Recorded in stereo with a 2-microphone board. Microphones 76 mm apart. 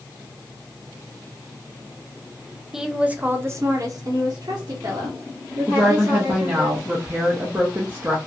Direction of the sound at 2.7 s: 5° right (ahead or behind).